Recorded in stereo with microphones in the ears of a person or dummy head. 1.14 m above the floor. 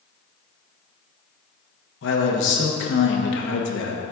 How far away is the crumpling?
I don't hear crumpling.